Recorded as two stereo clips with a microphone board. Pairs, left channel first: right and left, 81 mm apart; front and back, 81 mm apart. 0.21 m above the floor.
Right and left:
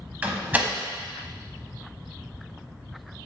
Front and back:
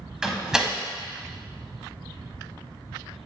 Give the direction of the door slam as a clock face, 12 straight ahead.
8 o'clock.